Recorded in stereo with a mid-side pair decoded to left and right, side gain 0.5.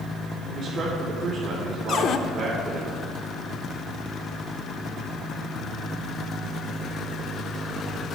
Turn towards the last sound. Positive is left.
turn(degrees=60)